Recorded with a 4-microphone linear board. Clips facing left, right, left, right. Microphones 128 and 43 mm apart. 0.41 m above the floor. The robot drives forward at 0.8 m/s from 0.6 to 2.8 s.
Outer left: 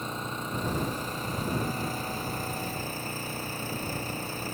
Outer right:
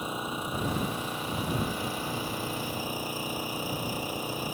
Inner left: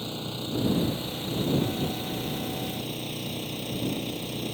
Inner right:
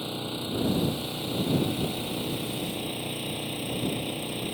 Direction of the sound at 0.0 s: 10° right (ahead or behind).